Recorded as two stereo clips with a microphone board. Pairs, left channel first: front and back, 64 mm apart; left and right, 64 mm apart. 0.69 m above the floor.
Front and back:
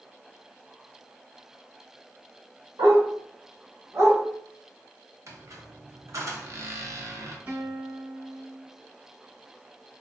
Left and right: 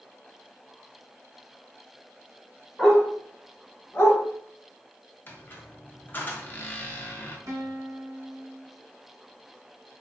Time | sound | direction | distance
2.8 | a dog barking | 175° right | 1.1 m
5.3 | a squeak | 150° left | 0.5 m
7.5 | a guitar | 120° right | 1.0 m